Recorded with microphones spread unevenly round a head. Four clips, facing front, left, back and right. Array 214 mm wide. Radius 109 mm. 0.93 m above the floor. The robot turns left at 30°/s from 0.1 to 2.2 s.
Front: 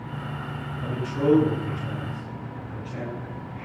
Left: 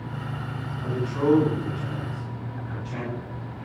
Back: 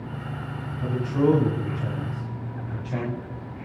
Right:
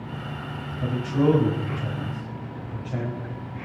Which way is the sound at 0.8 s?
115° right.